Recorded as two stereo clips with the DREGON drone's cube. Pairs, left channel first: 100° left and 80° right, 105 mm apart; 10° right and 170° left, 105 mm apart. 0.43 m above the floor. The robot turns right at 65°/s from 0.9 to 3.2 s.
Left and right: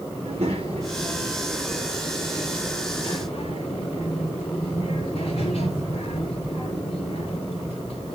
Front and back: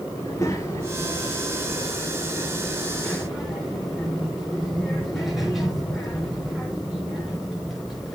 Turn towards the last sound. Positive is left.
turn(degrees=80)